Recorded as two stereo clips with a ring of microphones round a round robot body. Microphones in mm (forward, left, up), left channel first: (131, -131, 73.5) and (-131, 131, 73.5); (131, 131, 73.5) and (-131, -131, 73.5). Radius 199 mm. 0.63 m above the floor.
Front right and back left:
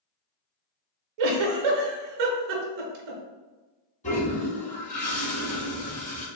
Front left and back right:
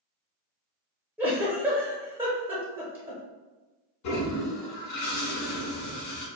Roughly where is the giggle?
Behind left.